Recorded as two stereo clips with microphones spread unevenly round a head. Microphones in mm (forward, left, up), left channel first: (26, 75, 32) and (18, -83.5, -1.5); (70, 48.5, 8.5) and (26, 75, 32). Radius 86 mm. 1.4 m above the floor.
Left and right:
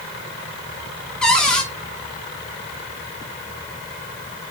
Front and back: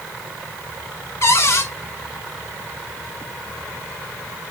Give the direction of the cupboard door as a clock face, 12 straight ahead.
12 o'clock.